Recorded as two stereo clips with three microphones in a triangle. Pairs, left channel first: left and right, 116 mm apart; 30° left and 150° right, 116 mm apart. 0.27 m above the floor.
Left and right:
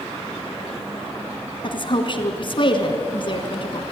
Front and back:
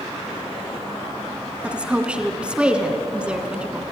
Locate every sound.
1.6 s a woman speaking: 130° left, 2.5 m